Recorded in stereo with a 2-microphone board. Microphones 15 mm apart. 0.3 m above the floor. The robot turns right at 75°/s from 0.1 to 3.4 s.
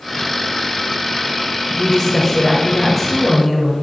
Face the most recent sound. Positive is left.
turn(degrees=-10)  # may be behind; listen again after turning